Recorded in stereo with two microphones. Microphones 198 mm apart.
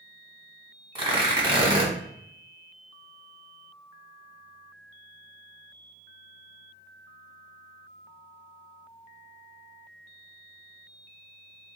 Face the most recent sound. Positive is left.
turn(degrees=-25)  # may be behind; listen again after turning